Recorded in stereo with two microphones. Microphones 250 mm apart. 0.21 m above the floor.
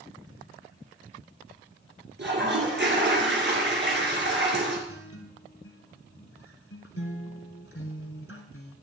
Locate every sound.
2.2 s a toilet flushing: 45° right (ahead or behind), 2.5 m
4.9 s a guitar: 60° left (ahead or behind), 1.3 m